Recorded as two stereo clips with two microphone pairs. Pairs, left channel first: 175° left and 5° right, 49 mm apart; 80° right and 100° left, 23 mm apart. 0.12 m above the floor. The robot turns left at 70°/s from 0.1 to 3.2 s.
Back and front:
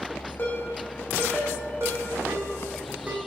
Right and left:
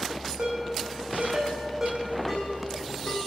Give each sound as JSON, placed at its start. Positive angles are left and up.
{"t": 0.4, "sound": "a ringtone", "azimuth_deg": 130, "distance_m": 4.0}